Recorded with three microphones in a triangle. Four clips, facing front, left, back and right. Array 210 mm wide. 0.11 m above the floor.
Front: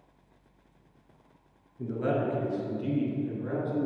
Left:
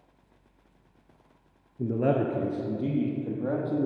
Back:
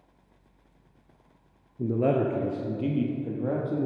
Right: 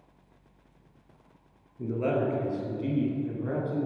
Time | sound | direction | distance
1.8 | a man speaking | 145° left | 1.4 m